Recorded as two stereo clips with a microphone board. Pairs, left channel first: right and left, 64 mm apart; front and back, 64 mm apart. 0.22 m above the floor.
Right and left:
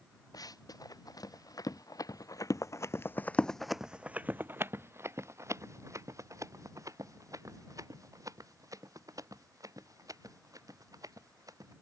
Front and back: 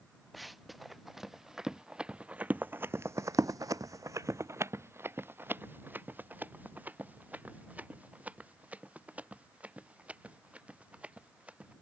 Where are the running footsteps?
90° right; by 11.7 s 110° left.